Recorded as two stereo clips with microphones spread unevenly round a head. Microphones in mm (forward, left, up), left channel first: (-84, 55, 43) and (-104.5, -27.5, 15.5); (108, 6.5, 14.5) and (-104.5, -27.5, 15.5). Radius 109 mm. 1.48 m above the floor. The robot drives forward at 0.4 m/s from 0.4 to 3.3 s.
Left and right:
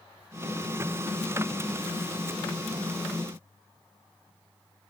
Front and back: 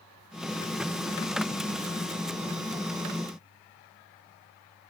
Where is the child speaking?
I don't hear a child speaking.